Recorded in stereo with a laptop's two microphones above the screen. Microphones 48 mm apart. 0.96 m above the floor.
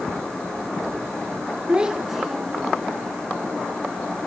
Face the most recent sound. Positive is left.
turn(degrees=5)  # may be behind; listen again after turning